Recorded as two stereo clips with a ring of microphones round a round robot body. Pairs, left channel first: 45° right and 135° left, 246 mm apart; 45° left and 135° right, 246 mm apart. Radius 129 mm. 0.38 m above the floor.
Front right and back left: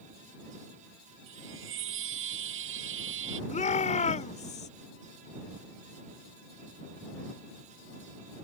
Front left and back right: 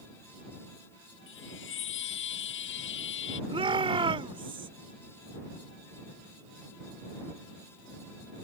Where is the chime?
90° left.